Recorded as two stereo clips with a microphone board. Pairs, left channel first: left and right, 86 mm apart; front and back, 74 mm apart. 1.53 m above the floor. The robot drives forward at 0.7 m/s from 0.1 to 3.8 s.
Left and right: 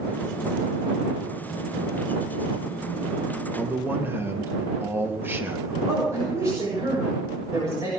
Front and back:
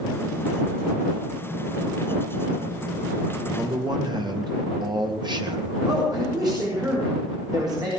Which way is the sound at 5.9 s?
145° right.